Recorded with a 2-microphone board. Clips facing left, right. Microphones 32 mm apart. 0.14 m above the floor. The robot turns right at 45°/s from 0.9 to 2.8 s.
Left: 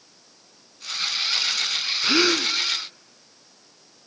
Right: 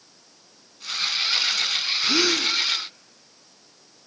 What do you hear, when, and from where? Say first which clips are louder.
2.0 s a gasp: left 2 dB; 20° left (ahead or behind), 0.5 m; by 2.5 s 15° left (ahead or behind), 0.5 m